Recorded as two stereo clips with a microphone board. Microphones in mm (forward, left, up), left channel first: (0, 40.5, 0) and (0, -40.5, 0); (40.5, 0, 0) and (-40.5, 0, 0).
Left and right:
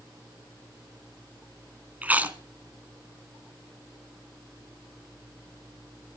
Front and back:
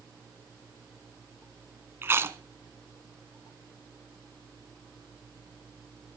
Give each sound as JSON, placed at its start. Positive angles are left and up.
{"t": 2.0, "sound": "chewing", "azimuth_deg": -145, "distance_m": 1.8}